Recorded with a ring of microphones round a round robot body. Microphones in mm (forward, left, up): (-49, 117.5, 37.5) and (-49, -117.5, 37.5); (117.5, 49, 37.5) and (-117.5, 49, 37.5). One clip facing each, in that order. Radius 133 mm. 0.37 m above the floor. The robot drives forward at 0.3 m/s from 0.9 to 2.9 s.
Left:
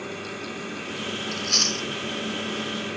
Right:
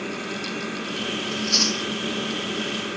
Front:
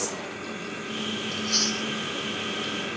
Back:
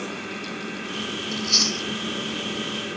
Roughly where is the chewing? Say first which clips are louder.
Right 5 dB, back 2 dB; behind left.